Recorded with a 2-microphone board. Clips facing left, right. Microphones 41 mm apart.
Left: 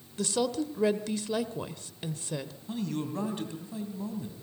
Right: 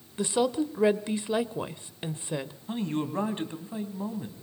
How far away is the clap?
No clap in this recording.